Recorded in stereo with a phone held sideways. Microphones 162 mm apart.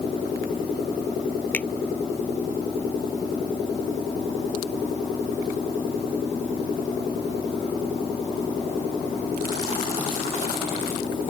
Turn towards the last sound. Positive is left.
turn(degrees=10)  # may be behind; listen again after turning